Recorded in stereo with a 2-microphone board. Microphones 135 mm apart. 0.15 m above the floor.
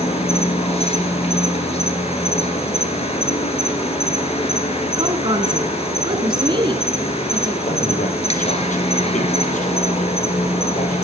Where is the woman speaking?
40° right (ahead or behind), 1.4 m.